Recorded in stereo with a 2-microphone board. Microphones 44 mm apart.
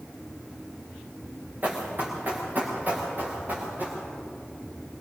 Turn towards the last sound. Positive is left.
turn(degrees=-45)  # may be behind; listen again after turning